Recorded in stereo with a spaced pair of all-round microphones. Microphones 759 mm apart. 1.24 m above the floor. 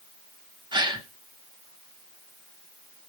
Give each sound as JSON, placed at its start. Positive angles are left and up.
{"t": 0.7, "sound": "a gasp", "side_deg": -5, "distance_m": 0.9}